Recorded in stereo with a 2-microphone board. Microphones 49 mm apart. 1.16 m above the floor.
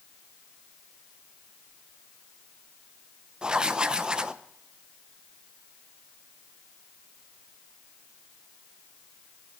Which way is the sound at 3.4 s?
15° right (ahead or behind).